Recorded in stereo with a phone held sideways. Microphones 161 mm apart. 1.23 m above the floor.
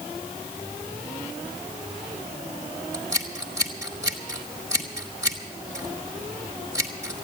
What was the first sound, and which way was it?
Scissors, 20° right (ahead or behind).